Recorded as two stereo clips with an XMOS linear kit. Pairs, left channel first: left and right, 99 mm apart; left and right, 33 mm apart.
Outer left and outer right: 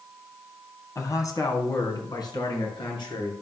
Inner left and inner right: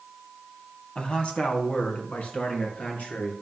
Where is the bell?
I don't hear a bell.